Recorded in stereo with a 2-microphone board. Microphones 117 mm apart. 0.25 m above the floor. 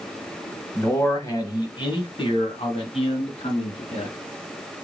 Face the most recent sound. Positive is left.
turn(degrees=65)  # may be behind; listen again after turning